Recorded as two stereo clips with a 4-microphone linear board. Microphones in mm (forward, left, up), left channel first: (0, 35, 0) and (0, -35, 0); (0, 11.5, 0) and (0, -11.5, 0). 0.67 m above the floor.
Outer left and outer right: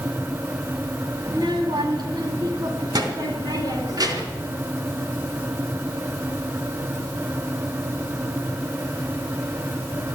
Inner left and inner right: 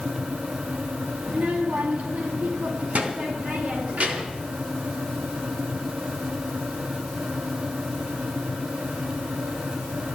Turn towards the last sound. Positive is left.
turn(degrees=-65)  # may be behind; listen again after turning